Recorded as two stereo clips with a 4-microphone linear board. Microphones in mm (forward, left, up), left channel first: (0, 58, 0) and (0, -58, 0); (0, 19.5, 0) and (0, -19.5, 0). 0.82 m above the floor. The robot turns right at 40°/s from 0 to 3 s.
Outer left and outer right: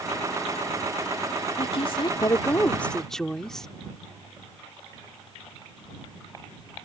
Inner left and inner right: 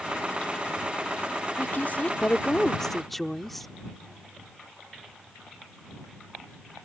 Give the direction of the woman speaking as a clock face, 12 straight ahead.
8 o'clock.